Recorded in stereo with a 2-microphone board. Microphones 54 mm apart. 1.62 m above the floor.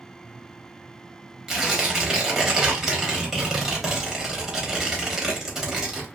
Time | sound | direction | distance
1.5 | tearing paper | 5° right (ahead or behind) | 0.9 m